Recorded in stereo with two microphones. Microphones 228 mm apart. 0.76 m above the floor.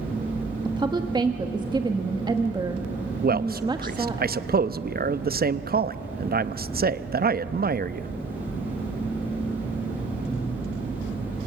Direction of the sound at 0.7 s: 20° right (ahead or behind).